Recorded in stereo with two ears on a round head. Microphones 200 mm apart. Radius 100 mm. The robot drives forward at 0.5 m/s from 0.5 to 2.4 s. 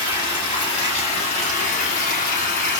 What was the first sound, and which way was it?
Running water, 25° left (ahead or behind).